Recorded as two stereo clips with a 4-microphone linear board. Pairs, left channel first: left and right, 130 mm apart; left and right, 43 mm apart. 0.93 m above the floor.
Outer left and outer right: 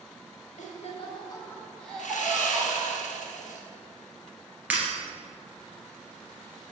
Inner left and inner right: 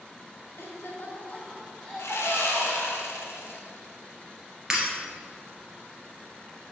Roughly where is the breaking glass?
Centre.